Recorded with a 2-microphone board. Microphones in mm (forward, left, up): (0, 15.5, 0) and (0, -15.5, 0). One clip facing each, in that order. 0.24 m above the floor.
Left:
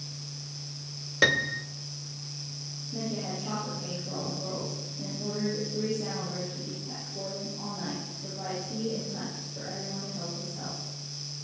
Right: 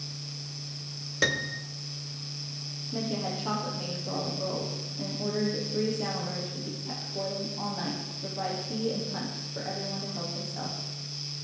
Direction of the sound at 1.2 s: 20° left (ahead or behind).